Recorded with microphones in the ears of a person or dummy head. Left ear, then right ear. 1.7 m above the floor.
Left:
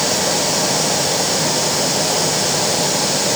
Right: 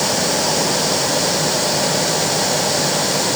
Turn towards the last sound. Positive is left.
No sound to turn to.